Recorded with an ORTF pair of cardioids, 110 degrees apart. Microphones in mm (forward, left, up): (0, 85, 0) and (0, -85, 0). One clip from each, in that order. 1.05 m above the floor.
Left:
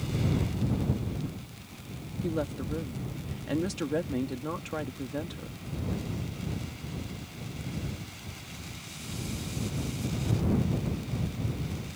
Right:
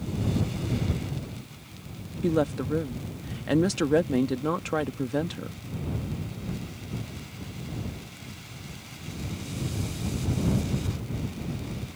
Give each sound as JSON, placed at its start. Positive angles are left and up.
{"t": 2.2, "sound": "a woman speaking", "azimuth_deg": -35}